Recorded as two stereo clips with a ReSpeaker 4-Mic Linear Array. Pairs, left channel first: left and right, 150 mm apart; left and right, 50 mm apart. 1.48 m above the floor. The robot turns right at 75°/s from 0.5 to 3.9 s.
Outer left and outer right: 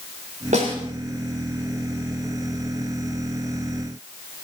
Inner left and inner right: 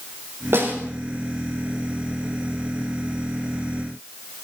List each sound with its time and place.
0.5 s a snare drum: 60° right (ahead or behind), 4 m; by 0.8 s 40° right (ahead or behind), 4 m